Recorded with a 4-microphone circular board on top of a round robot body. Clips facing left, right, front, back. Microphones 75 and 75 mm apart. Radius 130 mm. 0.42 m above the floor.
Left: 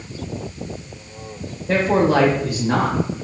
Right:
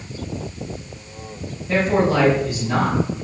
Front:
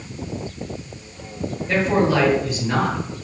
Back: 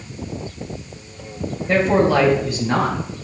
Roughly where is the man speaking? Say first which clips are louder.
Left 2 dB, back 3 dB; left.